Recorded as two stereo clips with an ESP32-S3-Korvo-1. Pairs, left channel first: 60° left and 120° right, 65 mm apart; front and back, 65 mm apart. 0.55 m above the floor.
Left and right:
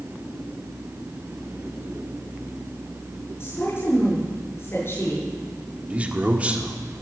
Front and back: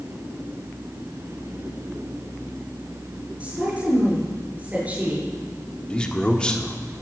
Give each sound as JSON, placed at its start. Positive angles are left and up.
{"t": 3.4, "sound": "a woman speaking", "azimuth_deg": 110, "distance_m": 7.0}
{"t": 5.9, "sound": "a man speaking", "azimuth_deg": -65, "distance_m": 1.5}